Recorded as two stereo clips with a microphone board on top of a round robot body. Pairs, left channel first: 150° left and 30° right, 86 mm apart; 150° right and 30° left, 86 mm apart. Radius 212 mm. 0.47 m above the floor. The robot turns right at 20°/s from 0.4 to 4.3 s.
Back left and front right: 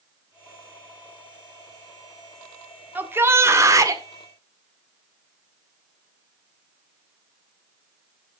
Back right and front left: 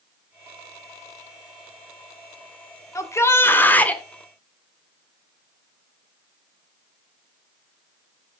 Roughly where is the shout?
Right.